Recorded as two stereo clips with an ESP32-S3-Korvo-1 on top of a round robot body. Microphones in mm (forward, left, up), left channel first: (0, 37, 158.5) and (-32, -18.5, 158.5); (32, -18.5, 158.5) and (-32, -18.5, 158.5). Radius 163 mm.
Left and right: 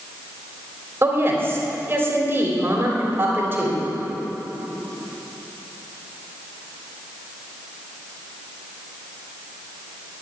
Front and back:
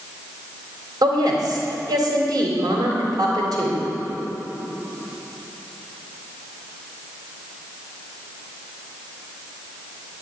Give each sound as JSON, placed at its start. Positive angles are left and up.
{"t": 1.0, "sound": "a woman speaking", "azimuth_deg": 180, "distance_m": 3.0}